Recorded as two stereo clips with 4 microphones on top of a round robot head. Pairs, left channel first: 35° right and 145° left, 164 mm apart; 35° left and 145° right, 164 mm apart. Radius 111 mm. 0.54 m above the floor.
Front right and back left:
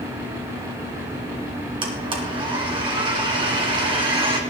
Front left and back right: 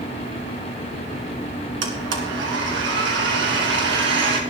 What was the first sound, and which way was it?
A blender, 155° right.